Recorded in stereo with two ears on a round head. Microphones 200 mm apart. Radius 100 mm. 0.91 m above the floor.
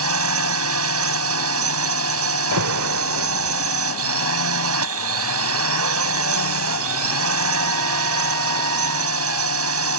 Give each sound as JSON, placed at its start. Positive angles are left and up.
{"t": 0.0, "sound": "a drone", "side_deg": -75}
{"t": 2.5, "sound": "an alarm", "side_deg": -85}